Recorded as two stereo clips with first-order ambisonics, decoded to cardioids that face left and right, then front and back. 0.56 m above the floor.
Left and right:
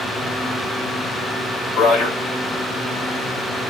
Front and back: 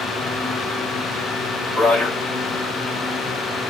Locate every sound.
1.8 s a man speaking: 50° left, 2.5 m